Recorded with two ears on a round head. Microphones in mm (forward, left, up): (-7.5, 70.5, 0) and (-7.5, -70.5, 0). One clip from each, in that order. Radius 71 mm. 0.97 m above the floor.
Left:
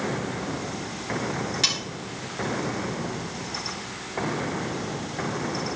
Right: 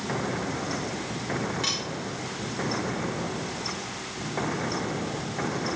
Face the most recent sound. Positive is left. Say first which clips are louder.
# left 5 dB
turn(degrees=90)